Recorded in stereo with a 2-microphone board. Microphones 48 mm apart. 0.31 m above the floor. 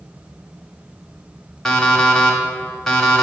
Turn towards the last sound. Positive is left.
turn(degrees=10)  # may be behind; listen again after turning